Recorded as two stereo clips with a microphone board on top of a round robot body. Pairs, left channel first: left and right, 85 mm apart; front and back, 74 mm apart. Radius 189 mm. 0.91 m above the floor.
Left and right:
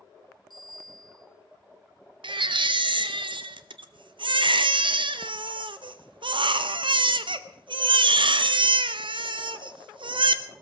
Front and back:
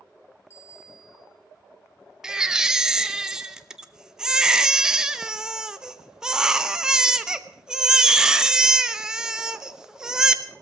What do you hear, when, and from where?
0.5 s a bicycle bell: 55° right, 6 m
2.2 s a baby crying: 100° right, 1.0 m